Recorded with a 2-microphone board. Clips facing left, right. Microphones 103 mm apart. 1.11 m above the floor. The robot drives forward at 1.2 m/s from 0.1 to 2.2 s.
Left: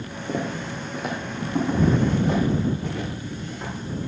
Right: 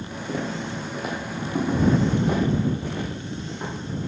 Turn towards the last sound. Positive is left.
turn(degrees=-20)  # may be behind; listen again after turning